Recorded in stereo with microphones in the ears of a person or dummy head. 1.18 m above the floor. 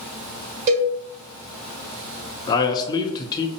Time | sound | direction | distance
0.7 | a cowbell | 45° right (ahead or behind) | 1.6 m
2.5 | a man speaking | 25° left (ahead or behind) | 0.6 m